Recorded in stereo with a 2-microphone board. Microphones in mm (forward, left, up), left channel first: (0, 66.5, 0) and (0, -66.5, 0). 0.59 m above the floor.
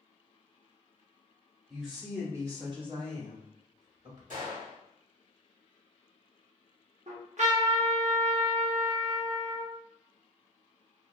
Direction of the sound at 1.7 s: 5° right (ahead or behind).